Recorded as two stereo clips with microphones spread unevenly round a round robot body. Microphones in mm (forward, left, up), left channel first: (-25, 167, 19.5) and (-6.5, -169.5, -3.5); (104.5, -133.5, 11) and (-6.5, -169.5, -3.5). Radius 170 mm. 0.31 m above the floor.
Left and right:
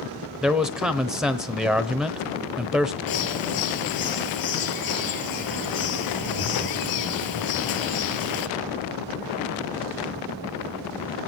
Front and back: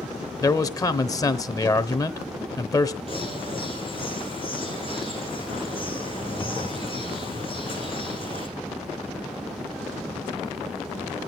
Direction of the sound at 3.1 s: 125° left.